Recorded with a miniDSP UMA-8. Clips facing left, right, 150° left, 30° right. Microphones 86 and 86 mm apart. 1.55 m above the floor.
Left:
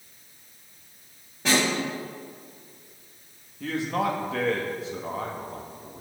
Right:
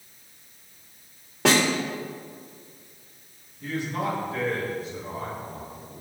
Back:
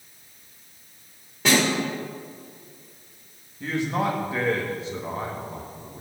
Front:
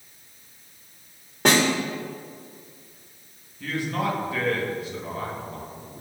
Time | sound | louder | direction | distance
1.4 | a snare drum | right 3 dB, front 1 dB | 70° right | 3 m
3.6 | a man speaking | left 2 dB, back 2 dB | 80° left | 2 m